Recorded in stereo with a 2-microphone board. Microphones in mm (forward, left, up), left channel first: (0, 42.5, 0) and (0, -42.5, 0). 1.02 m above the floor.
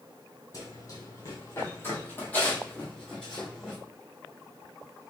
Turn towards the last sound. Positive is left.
turn(degrees=5)  # may be behind; listen again after turning